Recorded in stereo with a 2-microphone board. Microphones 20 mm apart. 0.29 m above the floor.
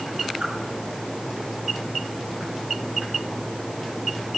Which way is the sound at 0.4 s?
30° right (ahead or behind).